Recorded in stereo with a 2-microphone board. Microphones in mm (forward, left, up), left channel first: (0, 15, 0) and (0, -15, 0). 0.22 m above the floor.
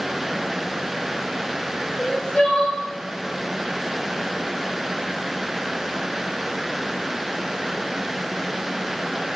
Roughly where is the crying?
Left.